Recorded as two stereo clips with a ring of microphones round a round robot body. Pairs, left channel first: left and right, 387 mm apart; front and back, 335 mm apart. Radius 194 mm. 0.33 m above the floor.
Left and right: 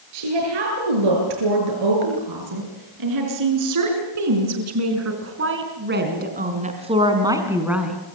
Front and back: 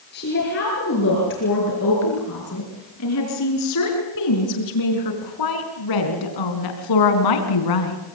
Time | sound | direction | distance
0.1 | a woman speaking | 65° right | 7.5 m